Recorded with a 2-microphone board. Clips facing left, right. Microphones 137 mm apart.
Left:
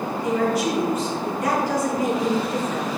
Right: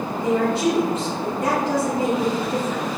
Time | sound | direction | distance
0.2 | a woman speaking | 30° right (ahead or behind) | 2.5 m